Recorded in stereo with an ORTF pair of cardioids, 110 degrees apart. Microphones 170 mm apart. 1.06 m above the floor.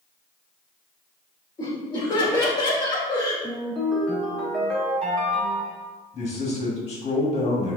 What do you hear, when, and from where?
1.6 s laughter: 25° left, 1.8 m
3.4 s a ringtone: 5° left, 1.6 m
6.1 s a man speaking: 40° left, 1.7 m